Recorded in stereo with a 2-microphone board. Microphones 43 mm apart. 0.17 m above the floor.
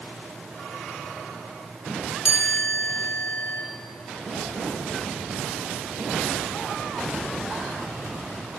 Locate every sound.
2.2 s a chime: 60° left (ahead or behind), 3 m